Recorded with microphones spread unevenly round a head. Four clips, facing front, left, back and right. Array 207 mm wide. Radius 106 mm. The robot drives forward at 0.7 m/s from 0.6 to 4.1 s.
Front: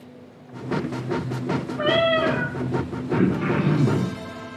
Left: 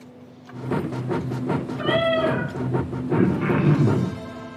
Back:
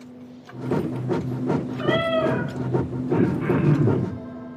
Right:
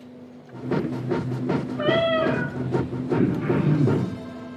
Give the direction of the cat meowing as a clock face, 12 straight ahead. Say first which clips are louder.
Even, front 3 dB; 2 o'clock.